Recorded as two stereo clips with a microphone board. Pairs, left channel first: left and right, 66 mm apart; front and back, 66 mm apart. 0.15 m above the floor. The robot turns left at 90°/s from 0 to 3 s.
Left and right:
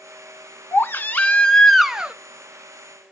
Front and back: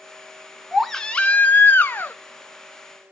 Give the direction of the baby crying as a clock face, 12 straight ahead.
9 o'clock.